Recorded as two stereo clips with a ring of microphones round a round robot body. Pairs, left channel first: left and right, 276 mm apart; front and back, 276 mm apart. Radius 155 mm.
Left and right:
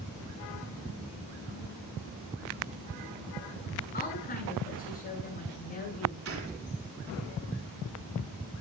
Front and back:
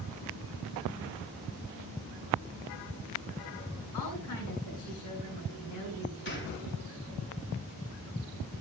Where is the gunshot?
50° right, 4 m.